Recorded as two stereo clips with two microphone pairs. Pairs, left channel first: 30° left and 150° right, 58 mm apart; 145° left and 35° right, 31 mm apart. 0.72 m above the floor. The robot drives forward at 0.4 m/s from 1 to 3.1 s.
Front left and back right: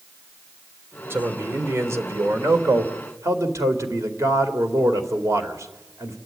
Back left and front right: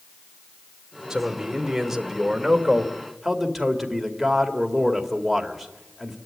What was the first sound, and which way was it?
A man speaking, 100° right.